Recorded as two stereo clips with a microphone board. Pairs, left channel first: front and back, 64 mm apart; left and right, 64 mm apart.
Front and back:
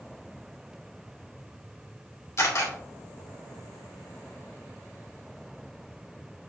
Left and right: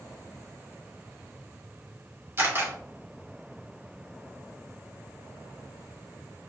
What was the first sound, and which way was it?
A camera shutter, 40° right.